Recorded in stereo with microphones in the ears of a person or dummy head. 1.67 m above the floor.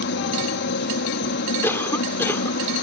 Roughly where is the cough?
Centre.